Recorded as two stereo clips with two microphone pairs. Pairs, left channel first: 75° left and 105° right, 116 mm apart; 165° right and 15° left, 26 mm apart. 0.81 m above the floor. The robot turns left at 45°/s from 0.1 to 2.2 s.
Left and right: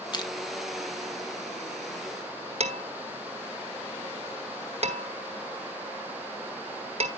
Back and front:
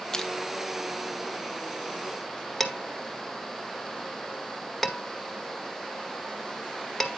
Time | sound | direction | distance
0.1 | crushing | 130° left | 1.1 m
2.6 | dishes clattering | 80° right | 1.5 m